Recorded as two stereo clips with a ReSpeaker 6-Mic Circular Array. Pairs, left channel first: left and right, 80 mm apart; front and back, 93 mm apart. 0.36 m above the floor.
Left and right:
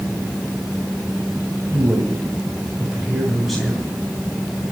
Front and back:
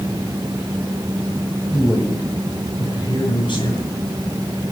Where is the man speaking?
45° right, 2.0 m; by 3.9 s 10° left, 3 m.